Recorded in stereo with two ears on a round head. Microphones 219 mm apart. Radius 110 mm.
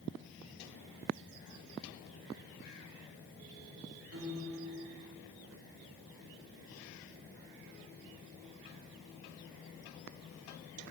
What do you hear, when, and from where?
4.1 s a piano: 60° right (ahead or behind), 2.5 m